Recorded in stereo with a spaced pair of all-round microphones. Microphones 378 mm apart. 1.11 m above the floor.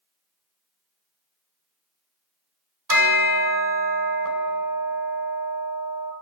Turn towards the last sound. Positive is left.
turn(degrees=-60)  # may be behind; listen again after turning